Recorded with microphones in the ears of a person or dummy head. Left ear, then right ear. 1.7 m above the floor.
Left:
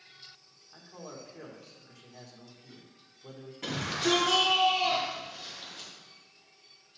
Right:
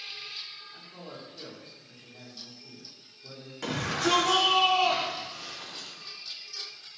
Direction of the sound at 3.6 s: 45° right (ahead or behind).